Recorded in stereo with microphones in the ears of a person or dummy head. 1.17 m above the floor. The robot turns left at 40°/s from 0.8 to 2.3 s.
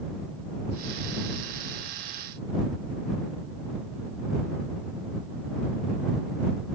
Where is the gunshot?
No gunshot in this recording.